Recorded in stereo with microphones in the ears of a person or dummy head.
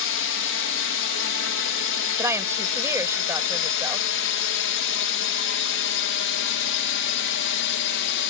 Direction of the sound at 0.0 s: 65° left (ahead or behind).